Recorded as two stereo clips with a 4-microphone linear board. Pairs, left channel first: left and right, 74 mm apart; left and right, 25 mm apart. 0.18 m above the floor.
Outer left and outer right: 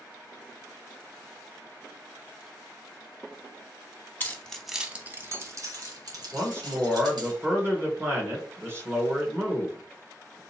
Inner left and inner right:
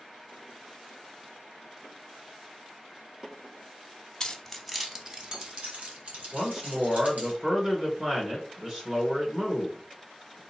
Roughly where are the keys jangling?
Left.